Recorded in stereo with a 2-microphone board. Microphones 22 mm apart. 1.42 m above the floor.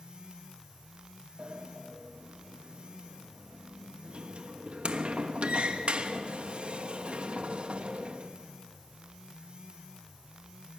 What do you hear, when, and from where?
1.4 s a sliding door: 55° right (ahead or behind), 1.1 m